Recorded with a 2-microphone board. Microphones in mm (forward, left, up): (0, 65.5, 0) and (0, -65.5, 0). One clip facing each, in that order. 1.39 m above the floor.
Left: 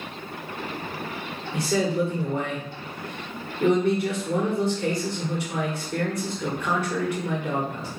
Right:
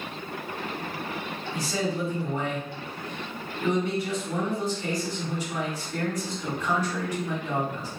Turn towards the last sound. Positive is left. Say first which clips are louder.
# left 6 dB
turn(degrees=60)  # may be behind; listen again after turning